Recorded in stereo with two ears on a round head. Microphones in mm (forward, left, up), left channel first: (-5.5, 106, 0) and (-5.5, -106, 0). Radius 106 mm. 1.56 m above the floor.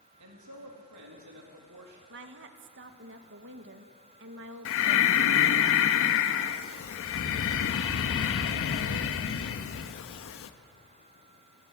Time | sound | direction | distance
0.2 | a man speaking | 85° right | 3.5 m
2.1 | a woman speaking | 50° right (ahead or behind) | 1.7 m
4.7 | breathing | 60° left (ahead or behind) | 1.4 m